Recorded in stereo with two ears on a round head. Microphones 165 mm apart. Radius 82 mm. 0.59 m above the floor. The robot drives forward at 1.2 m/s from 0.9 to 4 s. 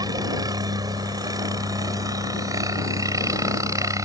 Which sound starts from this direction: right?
A helicopter, at 0.0 s.